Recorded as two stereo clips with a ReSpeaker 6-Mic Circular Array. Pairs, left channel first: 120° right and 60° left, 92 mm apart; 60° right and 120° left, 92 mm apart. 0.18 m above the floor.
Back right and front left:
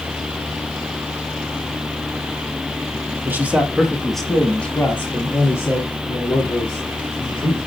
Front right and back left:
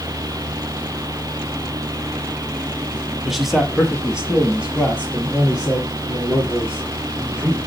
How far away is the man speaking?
About 1.2 m.